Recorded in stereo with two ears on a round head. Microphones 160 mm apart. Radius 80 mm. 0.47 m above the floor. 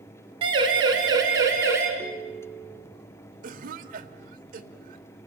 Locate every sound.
0.4 s a siren: 30° right (ahead or behind), 4 m; by 1.9 s 15° right (ahead or behind), 4.5 m
2.0 s a ringtone: 10° left (ahead or behind), 1.4 m
3.4 s a cough: 50° right (ahead or behind), 1.8 m